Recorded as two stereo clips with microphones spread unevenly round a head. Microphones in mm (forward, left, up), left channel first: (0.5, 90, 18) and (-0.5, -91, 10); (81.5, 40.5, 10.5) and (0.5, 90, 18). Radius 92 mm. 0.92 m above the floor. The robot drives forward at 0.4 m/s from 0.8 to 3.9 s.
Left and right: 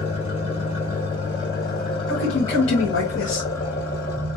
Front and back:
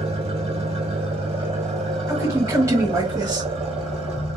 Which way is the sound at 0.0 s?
150° left.